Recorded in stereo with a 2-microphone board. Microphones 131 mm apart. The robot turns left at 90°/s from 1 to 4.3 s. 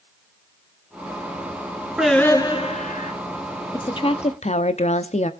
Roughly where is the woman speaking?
Behind left.